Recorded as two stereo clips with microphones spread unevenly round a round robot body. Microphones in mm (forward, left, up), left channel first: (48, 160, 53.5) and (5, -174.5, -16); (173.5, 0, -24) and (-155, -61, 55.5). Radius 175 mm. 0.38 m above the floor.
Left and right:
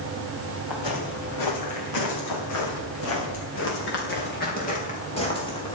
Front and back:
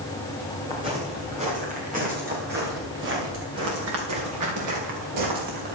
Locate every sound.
0.7 s footsteps: 115° left, 5.5 m; by 5.8 s 160° left, 4.5 m